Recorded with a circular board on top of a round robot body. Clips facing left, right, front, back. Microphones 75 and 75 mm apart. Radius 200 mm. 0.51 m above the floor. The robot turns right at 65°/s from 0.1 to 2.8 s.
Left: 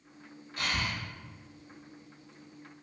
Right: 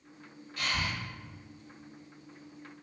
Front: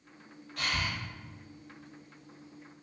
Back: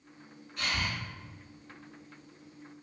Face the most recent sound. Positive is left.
turn(degrees=175)